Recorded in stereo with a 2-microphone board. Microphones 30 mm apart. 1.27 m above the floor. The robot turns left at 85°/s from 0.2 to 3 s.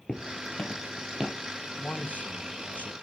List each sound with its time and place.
0.1 s footsteps: 40° left (ahead or behind), 1.6 m; by 1.4 s 30° right (ahead or behind), 2 m
1.8 s a man speaking: 150° left, 1.3 m; by 2.9 s 50° left, 1.3 m